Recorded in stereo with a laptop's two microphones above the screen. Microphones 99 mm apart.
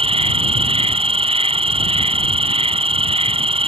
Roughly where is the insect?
Right.